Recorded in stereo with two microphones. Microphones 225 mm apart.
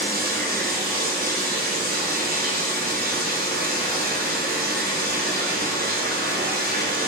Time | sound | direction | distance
0.0 | running water | 40° right (ahead or behind) | 0.8 m